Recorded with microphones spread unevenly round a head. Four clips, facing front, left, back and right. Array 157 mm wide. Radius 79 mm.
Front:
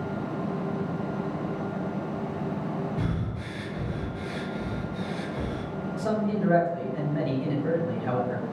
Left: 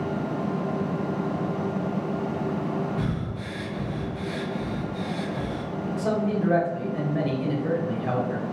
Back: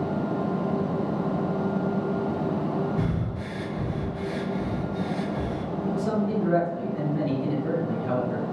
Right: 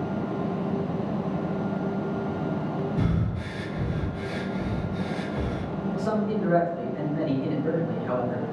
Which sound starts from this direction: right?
Breathing, at 3.0 s.